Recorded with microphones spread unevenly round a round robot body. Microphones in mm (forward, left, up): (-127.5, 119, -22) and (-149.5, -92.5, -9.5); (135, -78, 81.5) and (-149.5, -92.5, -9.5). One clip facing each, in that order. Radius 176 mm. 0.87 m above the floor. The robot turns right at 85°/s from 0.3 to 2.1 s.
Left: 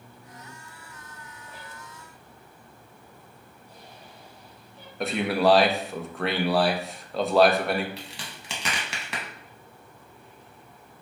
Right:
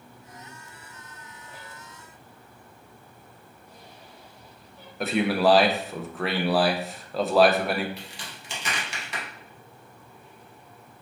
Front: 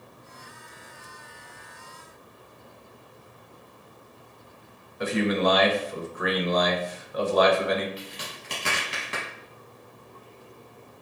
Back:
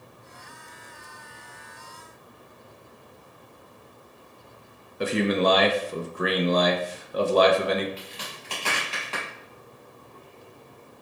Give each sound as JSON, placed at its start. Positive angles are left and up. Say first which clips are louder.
{"t": 5.0, "sound": "a man speaking", "louder": "right 1 dB, back 1 dB", "azimuth_deg": 175, "distance_m": 0.6}
{"t": 8.0, "sound": "a crack", "louder": "left 1 dB, front 1 dB", "azimuth_deg": 85, "distance_m": 0.8}